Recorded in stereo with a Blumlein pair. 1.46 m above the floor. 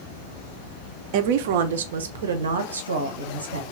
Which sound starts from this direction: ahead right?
A woman speaking, at 1.1 s.